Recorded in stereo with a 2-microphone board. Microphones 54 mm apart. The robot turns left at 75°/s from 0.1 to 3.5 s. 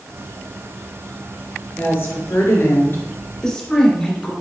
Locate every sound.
1.8 s a woman speaking: 140° left, 2.5 m; by 4.3 s 15° left, 2.5 m